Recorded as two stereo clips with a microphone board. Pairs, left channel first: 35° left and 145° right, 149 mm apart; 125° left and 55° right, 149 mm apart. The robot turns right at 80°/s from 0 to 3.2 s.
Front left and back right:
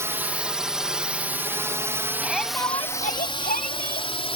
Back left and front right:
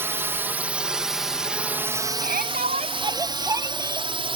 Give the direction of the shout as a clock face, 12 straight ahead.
2 o'clock.